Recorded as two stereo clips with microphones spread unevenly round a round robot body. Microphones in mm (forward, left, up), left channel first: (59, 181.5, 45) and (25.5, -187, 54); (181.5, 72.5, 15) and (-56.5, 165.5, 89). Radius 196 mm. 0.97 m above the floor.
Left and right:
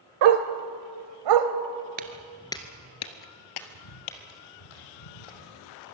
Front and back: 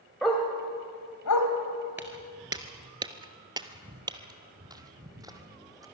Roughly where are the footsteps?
Behind right.